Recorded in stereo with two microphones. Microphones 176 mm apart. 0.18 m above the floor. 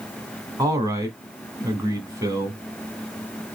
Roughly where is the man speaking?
Centre.